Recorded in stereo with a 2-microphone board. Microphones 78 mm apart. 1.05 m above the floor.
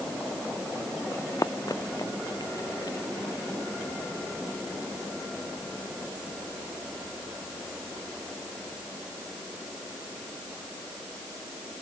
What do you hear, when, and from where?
1.1 s running footsteps: 45° left (ahead or behind); by 3.0 s 65° left (ahead or behind)